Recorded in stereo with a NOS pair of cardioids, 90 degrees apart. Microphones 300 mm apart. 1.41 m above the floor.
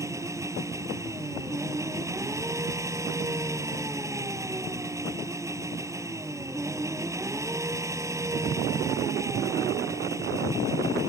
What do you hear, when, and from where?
0.0 s an engine running: 10° right